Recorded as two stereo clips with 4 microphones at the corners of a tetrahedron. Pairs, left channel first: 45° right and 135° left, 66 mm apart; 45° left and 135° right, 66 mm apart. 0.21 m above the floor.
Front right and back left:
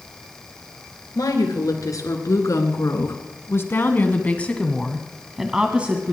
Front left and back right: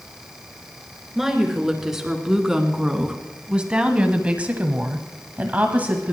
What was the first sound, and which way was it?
A woman speaking, 50° right.